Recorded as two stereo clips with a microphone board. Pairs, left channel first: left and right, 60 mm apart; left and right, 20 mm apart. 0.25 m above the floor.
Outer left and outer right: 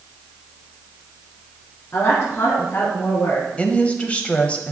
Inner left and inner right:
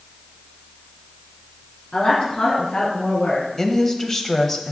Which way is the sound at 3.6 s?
20° left (ahead or behind).